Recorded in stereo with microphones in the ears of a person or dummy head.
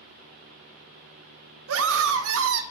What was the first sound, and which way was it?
A scream, 80° right.